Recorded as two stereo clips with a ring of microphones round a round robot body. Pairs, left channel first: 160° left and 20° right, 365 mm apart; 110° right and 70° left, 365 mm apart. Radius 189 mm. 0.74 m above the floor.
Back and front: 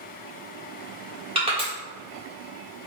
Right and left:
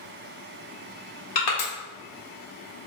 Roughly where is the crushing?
Right.